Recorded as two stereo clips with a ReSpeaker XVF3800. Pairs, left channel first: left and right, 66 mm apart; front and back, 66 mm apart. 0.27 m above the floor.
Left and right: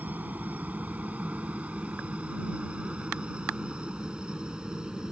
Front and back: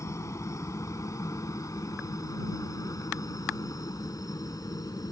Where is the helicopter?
30° right; by 5.1 s 15° right.